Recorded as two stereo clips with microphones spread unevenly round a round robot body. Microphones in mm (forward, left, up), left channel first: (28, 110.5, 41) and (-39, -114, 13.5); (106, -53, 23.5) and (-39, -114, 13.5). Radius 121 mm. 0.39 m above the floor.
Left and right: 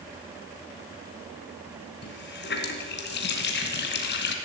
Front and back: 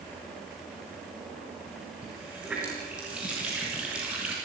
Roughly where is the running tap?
Behind left.